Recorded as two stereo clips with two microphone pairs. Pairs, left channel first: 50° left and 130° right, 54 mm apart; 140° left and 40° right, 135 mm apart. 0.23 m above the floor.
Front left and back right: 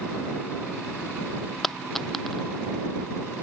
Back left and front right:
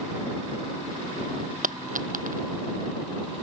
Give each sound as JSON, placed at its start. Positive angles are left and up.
{"t": 1.6, "sound": "a dropped coin", "azimuth_deg": -35}